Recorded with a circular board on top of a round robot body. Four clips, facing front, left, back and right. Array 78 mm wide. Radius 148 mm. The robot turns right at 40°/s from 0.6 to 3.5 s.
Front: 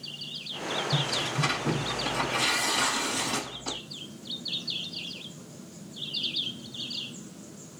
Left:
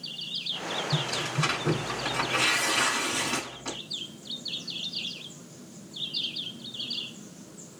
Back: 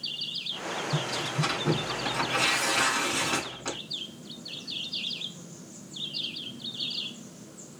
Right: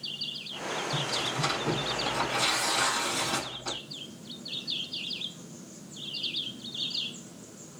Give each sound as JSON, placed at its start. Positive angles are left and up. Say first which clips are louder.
{"t": 0.9, "sound": "tearing paper", "louder": "left 1 dB, front 1 dB", "azimuth_deg": 60, "distance_m": 1.4}